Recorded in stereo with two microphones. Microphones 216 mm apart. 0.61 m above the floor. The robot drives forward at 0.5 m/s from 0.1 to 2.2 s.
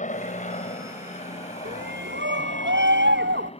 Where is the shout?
50° right (ahead or behind); by 3.5 s 55° right (ahead or behind).